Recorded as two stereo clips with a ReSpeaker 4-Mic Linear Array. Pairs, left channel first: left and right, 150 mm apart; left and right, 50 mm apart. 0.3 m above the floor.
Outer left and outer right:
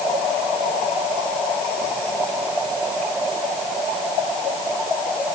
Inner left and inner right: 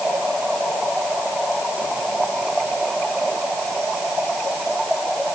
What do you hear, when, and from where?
Only background noise.